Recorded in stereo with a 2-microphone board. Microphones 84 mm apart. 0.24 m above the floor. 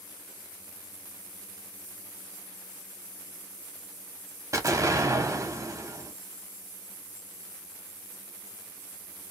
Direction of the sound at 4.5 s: 40° right (ahead or behind).